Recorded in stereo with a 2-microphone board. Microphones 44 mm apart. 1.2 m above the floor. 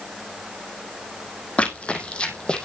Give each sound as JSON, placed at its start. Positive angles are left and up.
{"t": 1.6, "sound": "running footsteps", "side_deg": 25, "distance_m": 3.0}